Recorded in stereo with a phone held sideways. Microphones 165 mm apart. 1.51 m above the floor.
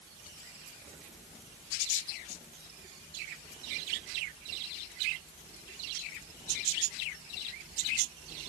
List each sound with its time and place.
Only background noise.